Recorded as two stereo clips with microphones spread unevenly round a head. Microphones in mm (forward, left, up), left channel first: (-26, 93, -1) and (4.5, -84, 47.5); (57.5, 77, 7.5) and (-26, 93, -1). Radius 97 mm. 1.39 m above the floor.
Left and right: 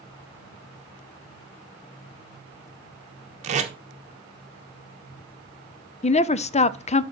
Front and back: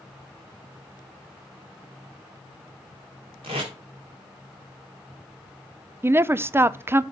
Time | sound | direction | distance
3.4 | tape being pulled | 135° right | 1.3 m
6.0 | a woman speaking | 120° left | 0.5 m